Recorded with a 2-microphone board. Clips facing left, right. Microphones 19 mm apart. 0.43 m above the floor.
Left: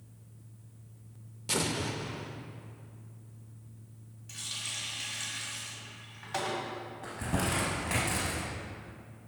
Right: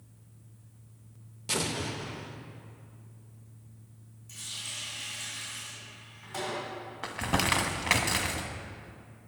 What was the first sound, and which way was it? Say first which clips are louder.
An explosion: even; 5° right (ahead or behind).